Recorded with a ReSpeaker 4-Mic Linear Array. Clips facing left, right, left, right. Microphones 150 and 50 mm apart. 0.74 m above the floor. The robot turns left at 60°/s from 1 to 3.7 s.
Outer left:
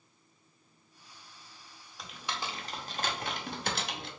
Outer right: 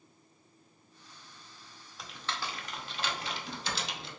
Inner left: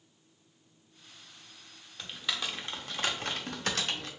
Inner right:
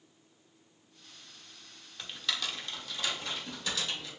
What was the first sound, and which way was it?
Typing on a keyboard, centre (ahead or behind).